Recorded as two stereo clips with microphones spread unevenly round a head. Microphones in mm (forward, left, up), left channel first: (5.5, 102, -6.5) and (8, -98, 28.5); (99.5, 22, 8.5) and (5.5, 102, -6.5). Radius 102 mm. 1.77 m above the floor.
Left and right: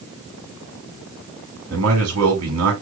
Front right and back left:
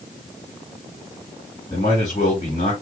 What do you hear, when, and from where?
1.7 s a man speaking: 110° right, 3 m